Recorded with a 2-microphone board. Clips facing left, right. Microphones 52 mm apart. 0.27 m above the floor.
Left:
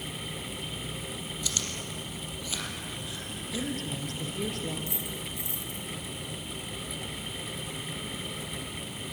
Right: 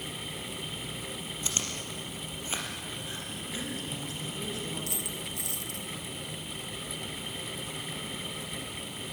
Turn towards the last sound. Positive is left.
turn(degrees=-70)  # may be behind; listen again after turning